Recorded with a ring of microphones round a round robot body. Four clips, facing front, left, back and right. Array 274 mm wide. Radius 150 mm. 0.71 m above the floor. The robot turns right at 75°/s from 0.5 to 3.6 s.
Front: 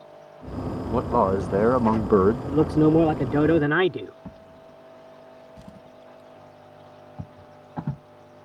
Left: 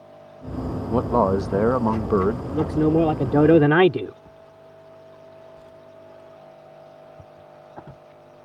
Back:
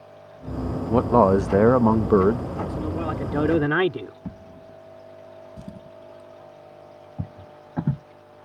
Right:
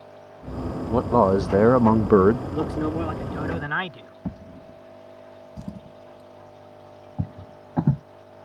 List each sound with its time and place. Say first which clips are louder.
0.9 s a man speaking: right 1 dB, back 5 dB; 170° left; by 2.4 s 80° right
2.5 s a man speaking: left 6 dB, front 11 dB; 5° left; by 4.2 s 90° left
4.2 s a drawer: right 8 dB, back 4 dB; 105° right